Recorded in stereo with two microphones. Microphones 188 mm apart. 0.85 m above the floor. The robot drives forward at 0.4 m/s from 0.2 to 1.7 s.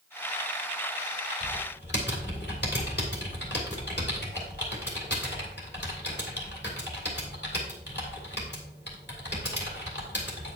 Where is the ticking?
I don't hear ticking.